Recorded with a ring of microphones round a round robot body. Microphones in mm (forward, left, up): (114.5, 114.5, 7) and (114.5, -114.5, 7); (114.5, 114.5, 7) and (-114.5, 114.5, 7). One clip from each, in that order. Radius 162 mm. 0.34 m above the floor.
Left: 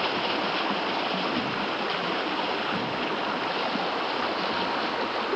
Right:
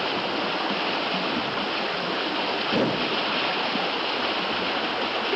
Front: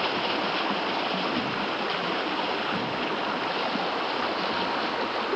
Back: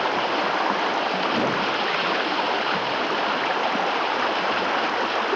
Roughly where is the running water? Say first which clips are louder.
Right 1 dB, back 4 dB; behind.